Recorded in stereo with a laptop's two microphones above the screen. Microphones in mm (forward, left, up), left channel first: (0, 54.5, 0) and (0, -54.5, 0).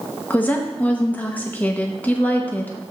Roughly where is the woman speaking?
Centre.